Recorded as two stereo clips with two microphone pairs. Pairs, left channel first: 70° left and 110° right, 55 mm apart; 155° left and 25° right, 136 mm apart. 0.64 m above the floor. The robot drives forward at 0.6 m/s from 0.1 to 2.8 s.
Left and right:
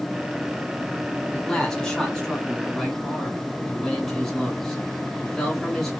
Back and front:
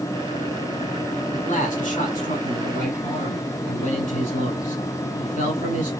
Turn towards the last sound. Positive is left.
turn(degrees=155)